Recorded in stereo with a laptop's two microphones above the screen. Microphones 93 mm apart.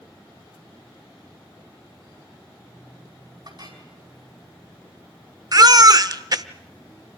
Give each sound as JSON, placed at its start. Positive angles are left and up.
{"t": 3.5, "sound": "a clink", "side_deg": -50, "distance_m": 5.0}
{"t": 5.5, "sound": "a baby crying", "side_deg": -45, "distance_m": 0.7}